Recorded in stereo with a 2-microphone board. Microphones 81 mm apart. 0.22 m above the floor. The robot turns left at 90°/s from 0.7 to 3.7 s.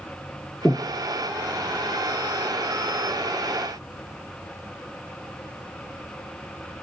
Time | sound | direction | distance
0.7 | breathing | 15° left (ahead or behind) | 0.6 m